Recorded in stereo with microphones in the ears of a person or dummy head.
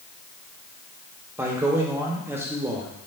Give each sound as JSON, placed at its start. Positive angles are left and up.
{"t": 1.4, "sound": "a man speaking", "side_deg": -5, "distance_m": 0.8}